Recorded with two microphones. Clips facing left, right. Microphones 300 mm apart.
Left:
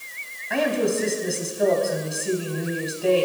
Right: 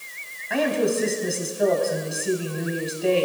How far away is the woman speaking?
About 3.5 m.